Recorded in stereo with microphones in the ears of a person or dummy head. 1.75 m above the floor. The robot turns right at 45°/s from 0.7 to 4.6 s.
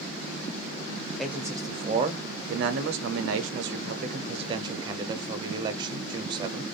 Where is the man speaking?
Straight behind, 0.6 m; by 6.6 s 25° right, 0.6 m.